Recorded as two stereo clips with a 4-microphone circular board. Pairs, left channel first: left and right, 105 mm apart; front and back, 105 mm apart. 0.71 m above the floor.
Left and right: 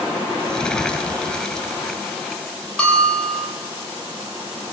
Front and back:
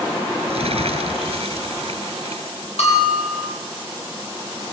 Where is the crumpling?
170° left, 4.5 m.